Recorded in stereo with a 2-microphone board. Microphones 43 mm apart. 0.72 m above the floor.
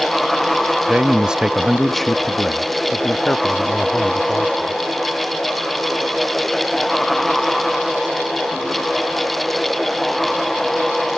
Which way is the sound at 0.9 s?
30° right (ahead or behind).